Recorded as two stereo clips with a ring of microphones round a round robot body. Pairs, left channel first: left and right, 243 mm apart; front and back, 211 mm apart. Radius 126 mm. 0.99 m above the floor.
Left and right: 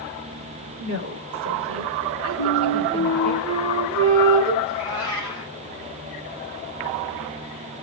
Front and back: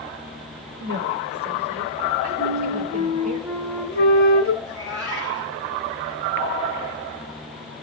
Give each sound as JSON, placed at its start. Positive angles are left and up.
{"t": 0.8, "sound": "a woman speaking", "azimuth_deg": -135, "distance_m": 3.5}
{"t": 2.4, "sound": "a flute", "azimuth_deg": -55, "distance_m": 4.0}
{"t": 4.6, "sound": "a cat meowing", "azimuth_deg": -65, "distance_m": 8.5}